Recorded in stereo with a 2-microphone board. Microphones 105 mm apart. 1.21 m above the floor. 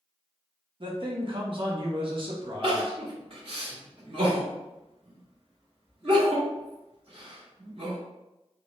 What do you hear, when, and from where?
0.8 s a man speaking: 50° right (ahead or behind), 0.6 m
2.6 s crying: 55° right (ahead or behind), 1.5 m